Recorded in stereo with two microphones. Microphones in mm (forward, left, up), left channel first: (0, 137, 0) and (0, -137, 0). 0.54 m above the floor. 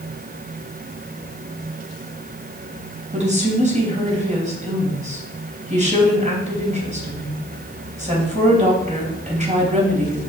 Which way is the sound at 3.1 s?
25° right (ahead or behind).